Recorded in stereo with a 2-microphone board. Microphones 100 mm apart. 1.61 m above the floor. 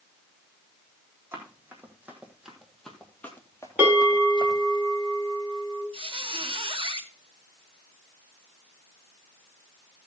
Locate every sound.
1.3 s running footsteps: 25° right (ahead or behind), 3.5 m; by 4.8 s 55° left (ahead or behind), 2.5 m
3.8 s a bell: 15° right (ahead or behind), 6.5 m
5.9 s a squeak: 60° right (ahead or behind), 1.3 m